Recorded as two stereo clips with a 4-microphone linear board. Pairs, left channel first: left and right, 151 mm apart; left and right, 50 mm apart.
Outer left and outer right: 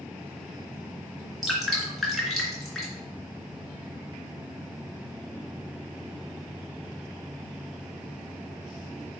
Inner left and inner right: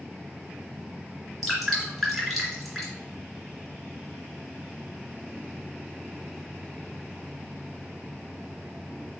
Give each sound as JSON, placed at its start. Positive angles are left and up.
{"t": 1.4, "sound": "dripping", "side_deg": 0, "distance_m": 2.5}